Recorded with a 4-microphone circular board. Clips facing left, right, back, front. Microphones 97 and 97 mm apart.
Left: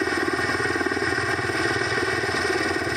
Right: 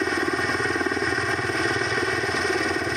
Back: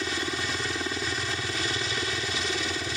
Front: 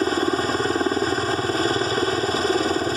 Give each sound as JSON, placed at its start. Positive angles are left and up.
{"t": 0.0, "sound": "a helicopter", "azimuth_deg": 0}